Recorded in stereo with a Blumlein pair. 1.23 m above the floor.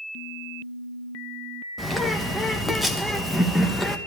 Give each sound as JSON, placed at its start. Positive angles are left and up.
{"t": 1.8, "sound": "a bird", "azimuth_deg": 0, "distance_m": 1.5}